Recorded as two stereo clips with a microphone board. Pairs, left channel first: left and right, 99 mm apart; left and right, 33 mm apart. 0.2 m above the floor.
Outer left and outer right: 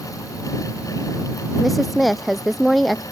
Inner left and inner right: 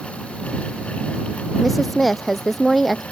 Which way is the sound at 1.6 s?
Centre (ahead or behind).